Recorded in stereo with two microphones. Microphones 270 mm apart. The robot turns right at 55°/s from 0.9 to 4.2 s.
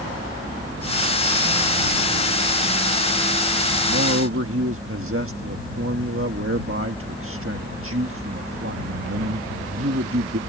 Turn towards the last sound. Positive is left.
turn(degrees=-50)  # may be behind; listen again after turning